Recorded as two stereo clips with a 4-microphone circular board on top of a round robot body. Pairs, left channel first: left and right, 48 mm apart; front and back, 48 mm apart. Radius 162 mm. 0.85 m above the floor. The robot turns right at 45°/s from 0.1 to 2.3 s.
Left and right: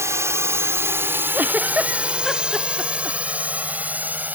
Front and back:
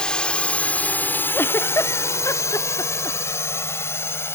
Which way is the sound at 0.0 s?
70° right.